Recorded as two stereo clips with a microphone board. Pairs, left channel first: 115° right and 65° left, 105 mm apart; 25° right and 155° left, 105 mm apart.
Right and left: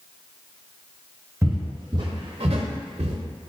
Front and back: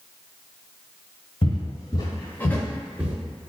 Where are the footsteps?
5° left, 1.2 m; by 3.1 s 90° left, 0.7 m.